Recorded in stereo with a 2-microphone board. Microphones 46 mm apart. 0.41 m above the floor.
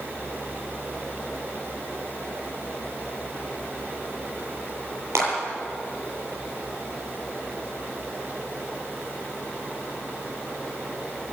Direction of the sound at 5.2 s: 75° right (ahead or behind).